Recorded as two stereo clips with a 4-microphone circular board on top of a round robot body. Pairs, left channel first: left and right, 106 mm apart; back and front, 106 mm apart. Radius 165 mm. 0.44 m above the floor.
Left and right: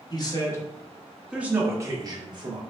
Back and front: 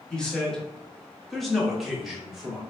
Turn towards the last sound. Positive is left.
turn(degrees=-85)